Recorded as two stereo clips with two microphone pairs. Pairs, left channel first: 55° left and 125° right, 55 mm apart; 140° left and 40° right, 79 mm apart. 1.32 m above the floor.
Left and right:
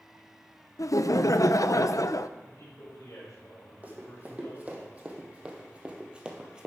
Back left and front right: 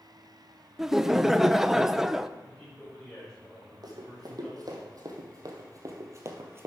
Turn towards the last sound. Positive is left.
turn(degrees=-60)